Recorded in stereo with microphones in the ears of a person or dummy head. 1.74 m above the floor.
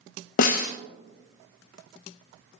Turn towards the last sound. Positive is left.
turn(degrees=55)  # may be behind; listen again after turning